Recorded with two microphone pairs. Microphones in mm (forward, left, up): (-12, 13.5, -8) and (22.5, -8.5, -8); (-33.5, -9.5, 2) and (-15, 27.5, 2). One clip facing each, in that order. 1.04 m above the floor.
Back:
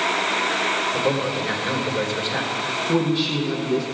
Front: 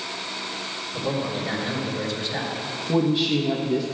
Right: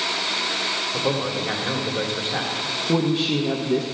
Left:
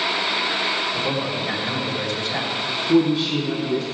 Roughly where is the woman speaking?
Behind right.